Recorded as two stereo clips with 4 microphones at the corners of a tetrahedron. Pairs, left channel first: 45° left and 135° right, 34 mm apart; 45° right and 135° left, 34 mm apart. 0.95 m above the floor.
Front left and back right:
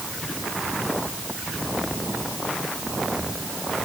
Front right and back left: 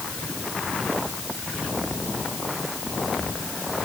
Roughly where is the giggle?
No giggle in this recording.